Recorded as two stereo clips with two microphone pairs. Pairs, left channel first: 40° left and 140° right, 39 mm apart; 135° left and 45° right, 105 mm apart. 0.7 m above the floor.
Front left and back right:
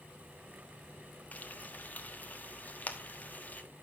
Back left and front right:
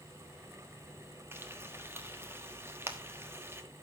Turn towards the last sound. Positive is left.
turn(degrees=15)